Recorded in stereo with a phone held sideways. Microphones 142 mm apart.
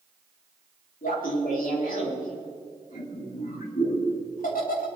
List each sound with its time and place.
1.0 s laughter: 75° left (ahead or behind), 4 m